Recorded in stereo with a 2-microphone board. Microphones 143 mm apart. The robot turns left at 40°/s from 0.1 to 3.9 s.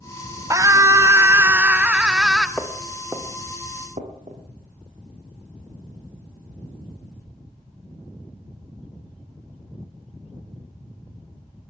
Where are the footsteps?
5° left (ahead or behind), 3 m; by 4.4 s 45° right (ahead or behind), 4.5 m.